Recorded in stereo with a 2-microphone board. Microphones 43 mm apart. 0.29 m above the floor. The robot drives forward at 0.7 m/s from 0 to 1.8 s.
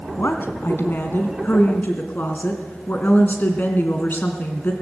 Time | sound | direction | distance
0.2 | a woman speaking | 60° left (ahead or behind) | 2 m